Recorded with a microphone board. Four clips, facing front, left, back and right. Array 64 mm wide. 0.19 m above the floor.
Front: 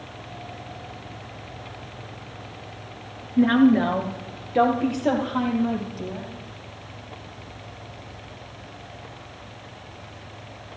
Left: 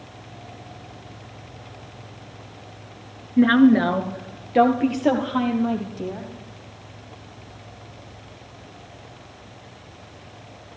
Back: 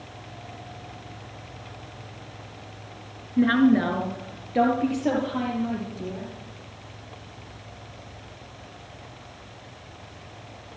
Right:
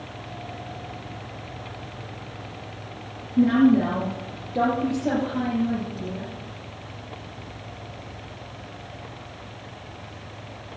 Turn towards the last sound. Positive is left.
turn(degrees=85)